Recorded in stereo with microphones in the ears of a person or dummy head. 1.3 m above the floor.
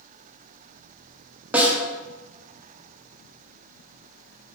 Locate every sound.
1.5 s a snare drum: 5° right (ahead or behind), 0.5 m